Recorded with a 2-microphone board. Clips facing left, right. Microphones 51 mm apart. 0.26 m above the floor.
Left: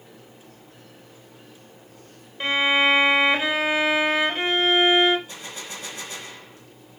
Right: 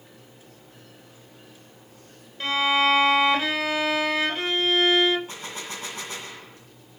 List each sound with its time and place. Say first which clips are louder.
2.4 s a violin: left 2 dB; 25° left (ahead or behind), 0.7 m
5.3 s a gunshot: right 1 dB; 45° right (ahead or behind), 2.5 m